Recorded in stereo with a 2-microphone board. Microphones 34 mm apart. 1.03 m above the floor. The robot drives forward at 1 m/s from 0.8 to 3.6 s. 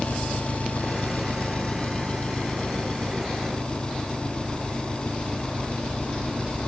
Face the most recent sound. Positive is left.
turn(degrees=30)  # may be behind; listen again after turning